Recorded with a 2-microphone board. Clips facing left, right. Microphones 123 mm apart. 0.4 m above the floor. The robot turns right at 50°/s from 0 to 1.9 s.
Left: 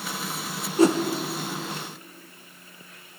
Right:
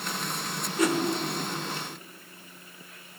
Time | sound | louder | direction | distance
0.8 | a whoosh | left 6 dB | 30° left (ahead or behind) | 0.6 m